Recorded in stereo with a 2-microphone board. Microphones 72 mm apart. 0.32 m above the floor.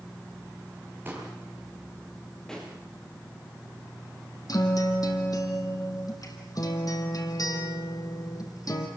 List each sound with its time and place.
1.1 s a pop: 25° right (ahead or behind), 7 m
2.5 s a pop: 5° left (ahead or behind), 6.5 m
4.5 s a guitar: 55° left (ahead or behind), 3 m